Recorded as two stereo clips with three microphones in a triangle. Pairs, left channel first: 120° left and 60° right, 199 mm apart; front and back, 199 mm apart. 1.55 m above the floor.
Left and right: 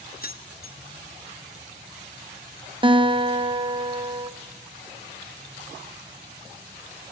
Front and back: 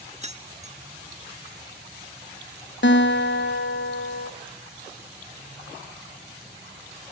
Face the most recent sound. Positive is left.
turn(degrees=5)